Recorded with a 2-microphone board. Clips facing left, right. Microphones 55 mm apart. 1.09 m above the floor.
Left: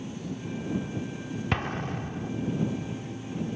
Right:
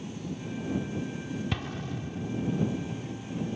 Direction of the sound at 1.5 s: 50° left (ahead or behind).